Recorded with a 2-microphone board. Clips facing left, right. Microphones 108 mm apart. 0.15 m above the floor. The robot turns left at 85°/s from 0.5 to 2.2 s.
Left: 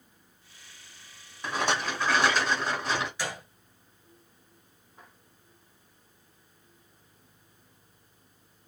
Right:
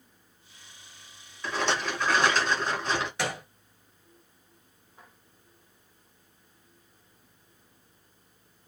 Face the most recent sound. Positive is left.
turn(degrees=-65)  # may be behind; listen again after turning